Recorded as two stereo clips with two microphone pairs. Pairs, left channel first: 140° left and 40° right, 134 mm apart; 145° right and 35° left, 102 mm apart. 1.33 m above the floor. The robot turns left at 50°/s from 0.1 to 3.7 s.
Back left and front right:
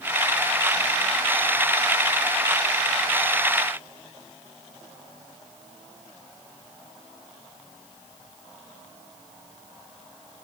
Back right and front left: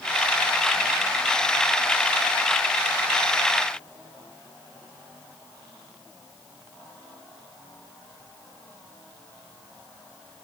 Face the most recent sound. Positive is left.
No sound to turn to.